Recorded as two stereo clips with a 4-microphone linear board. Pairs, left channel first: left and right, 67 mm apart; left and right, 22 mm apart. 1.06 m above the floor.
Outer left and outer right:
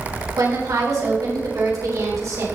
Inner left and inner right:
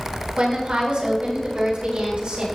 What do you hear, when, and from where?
0.4 s a woman speaking: 75° right (ahead or behind), 4 m; by 2.5 s 60° right (ahead or behind), 4.5 m